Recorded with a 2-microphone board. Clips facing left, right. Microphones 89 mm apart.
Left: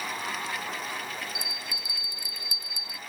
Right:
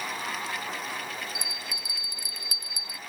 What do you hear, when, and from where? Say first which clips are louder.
1.4 s a bell: even; 75° right (ahead or behind)